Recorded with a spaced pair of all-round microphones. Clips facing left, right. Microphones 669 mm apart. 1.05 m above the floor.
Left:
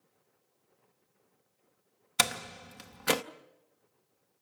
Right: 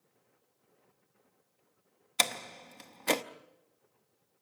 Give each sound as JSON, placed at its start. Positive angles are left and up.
{"t": 2.2, "sound": "a door slam", "side_deg": 45, "distance_m": 0.7}